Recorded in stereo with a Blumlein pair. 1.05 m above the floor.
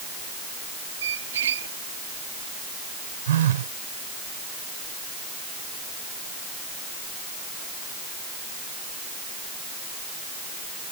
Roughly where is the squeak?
Ahead right.